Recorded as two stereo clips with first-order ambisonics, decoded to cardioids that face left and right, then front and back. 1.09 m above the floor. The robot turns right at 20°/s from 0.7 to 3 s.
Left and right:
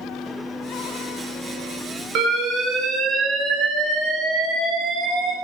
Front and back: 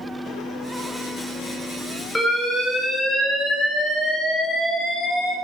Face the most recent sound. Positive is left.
turn(degrees=-65)